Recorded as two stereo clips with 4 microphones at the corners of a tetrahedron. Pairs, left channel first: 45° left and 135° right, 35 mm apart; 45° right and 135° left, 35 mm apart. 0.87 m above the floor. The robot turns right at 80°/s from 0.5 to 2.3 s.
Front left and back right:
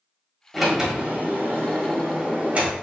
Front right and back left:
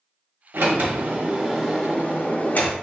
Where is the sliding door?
135° left, 1.3 m; by 2.7 s 85° right, 1.3 m.